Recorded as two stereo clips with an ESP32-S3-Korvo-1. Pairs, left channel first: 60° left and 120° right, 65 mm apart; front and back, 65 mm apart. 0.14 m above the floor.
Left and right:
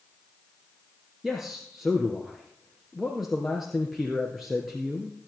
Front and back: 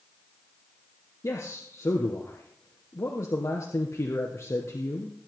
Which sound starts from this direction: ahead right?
A man speaking, at 1.2 s.